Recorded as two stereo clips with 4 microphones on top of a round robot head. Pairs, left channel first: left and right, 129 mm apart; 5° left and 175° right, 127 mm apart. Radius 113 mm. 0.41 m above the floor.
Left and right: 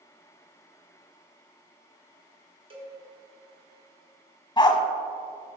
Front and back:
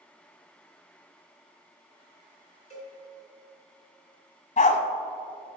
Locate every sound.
2.7 s a cowbell: 45° right, 2.5 m
4.6 s a dog barking: 35° left, 1.0 m